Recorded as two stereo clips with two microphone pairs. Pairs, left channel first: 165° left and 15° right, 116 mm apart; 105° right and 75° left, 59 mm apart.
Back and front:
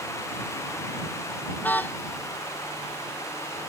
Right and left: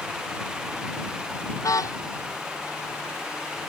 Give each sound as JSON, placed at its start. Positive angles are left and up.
{"t": 1.6, "sound": "a car horn", "azimuth_deg": -120}